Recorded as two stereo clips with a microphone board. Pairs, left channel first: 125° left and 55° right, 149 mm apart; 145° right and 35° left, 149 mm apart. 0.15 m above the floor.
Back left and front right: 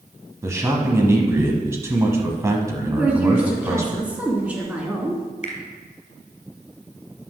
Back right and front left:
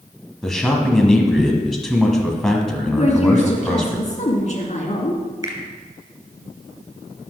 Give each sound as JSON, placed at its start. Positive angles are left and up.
{"t": 0.4, "sound": "a man speaking", "azimuth_deg": -65, "distance_m": 1.2}
{"t": 3.0, "sound": "a woman speaking", "azimuth_deg": -135, "distance_m": 2.0}
{"t": 5.4, "sound": "a finger snap", "azimuth_deg": 90, "distance_m": 2.0}